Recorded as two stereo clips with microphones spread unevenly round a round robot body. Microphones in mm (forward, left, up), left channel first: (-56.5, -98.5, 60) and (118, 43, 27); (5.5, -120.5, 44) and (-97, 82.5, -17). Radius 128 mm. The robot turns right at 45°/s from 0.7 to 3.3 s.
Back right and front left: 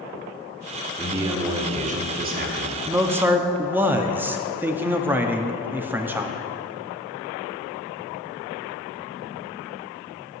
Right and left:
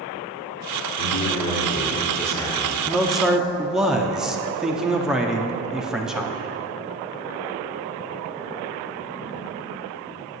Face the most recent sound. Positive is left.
turn(degrees=80)